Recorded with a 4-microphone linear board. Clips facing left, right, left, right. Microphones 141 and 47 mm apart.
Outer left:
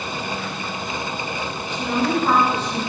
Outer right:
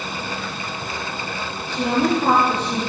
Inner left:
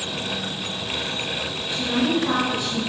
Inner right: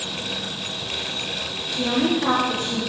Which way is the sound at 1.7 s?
60° right (ahead or behind).